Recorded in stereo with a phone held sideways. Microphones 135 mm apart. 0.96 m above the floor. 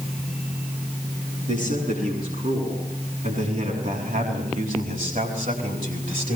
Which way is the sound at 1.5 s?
70° right (ahead or behind).